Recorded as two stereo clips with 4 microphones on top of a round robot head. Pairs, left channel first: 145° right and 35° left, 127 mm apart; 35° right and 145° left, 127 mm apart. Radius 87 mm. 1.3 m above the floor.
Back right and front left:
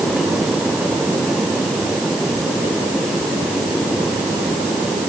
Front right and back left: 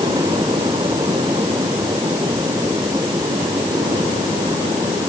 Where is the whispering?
No whispering in this recording.